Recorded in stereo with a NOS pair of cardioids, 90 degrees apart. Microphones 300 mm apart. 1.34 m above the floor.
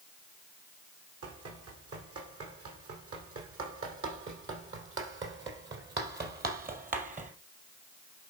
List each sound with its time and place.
1.2 s running footsteps: 55° right, 5 m; by 7.3 s 30° right, 2.5 m